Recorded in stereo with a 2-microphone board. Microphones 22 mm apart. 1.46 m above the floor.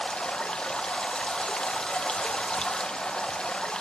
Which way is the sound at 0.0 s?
40° left (ahead or behind).